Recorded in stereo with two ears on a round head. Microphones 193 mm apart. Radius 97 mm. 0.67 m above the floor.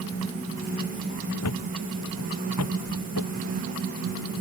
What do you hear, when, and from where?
1.4 s a thud: 75° left (ahead or behind)